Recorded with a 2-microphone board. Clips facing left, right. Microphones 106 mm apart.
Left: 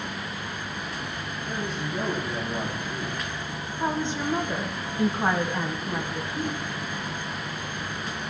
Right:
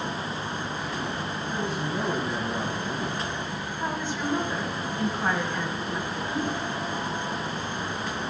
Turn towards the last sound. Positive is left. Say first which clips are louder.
# right 2 dB
turn(degrees=-75)  # may be behind; listen again after turning